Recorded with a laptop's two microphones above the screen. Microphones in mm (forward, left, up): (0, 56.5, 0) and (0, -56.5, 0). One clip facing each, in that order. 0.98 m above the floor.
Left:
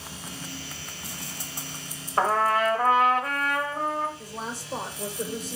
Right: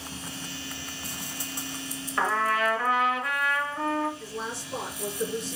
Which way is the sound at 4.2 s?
40° left (ahead or behind).